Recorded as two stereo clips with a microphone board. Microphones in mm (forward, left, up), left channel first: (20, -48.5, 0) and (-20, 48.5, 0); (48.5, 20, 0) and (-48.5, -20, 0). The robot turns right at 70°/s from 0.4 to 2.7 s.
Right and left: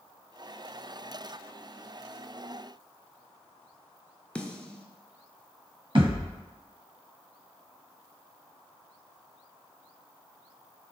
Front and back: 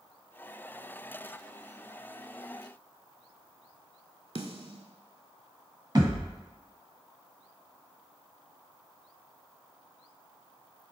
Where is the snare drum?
145° right, 0.5 m.